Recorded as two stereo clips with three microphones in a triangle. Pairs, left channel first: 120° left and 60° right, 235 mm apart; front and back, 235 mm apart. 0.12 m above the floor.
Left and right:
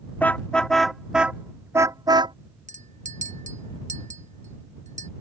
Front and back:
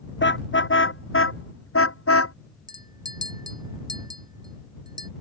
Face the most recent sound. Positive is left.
turn(degrees=-110)